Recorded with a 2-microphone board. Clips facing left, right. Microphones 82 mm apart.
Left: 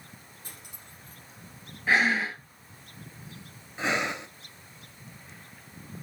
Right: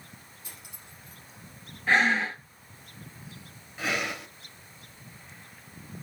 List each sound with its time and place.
0.4 s cutlery clinking: 50° left (ahead or behind), 4.5 m
1.9 s breathing: 5° left (ahead or behind), 1.3 m
3.8 s breathing: 25° left (ahead or behind), 0.8 m